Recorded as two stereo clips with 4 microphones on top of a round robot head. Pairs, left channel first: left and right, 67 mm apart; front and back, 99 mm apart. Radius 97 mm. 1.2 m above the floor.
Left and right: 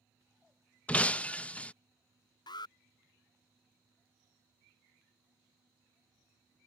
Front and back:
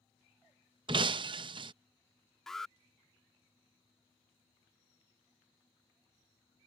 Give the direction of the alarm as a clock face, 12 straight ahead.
9 o'clock.